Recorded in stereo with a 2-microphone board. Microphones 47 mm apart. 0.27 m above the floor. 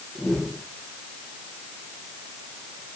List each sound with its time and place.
0.1 s a whoosh: 15° left (ahead or behind), 6.5 m